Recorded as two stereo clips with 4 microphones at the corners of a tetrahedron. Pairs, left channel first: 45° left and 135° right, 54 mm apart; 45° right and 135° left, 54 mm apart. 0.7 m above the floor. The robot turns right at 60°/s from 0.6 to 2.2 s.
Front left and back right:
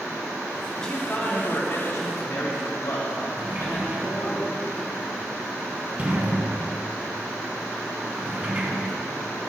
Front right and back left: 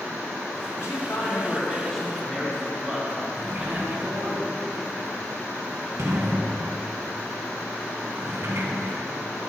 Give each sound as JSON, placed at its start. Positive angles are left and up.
{"t": 0.7, "sound": "a man speaking", "azimuth_deg": -35, "distance_m": 1.8}
{"t": 3.4, "sound": "a sliding door", "azimuth_deg": 170, "distance_m": 1.2}